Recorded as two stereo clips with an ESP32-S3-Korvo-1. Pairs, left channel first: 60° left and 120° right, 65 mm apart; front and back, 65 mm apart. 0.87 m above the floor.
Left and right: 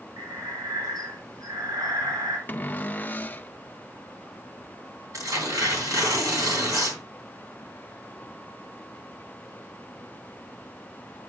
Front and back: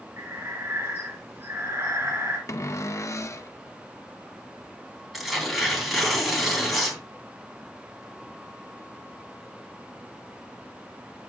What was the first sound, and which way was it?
Breathing, 130° right.